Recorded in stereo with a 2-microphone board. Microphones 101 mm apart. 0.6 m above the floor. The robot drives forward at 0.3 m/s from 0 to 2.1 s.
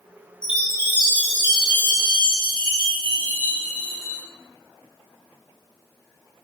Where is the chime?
45° left (ahead or behind), 4 m; by 4.2 s 40° left (ahead or behind), 4 m.